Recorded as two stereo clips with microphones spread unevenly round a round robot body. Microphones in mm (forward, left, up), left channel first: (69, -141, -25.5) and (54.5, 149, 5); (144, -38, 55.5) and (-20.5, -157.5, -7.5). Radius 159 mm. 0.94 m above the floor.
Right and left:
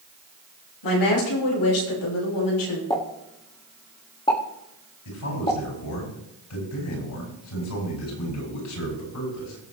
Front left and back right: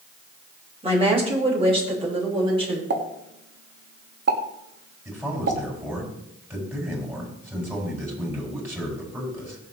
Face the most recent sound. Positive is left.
turn(degrees=-65)